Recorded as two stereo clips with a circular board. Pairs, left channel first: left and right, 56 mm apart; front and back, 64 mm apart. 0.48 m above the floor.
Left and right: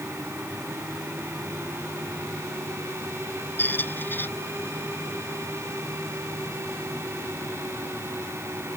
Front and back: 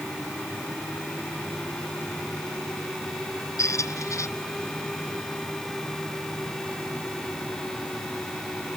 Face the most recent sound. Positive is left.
turn(degrees=35)